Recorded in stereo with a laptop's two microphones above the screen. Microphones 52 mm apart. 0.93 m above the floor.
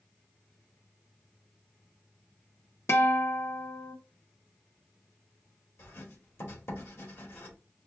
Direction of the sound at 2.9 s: 55° left (ahead or behind).